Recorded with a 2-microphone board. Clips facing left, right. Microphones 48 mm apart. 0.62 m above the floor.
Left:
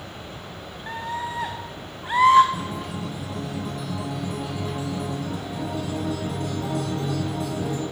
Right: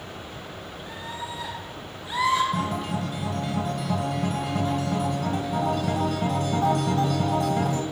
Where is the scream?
45° left (ahead or behind), 1.1 m.